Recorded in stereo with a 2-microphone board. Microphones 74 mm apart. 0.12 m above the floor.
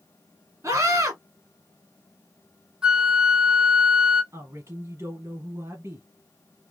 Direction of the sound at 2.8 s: 10° right (ahead or behind).